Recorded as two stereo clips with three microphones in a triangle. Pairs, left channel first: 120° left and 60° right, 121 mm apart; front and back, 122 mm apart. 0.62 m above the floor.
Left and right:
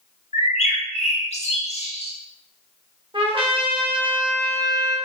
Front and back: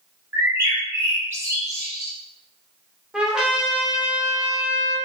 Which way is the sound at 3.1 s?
100° right.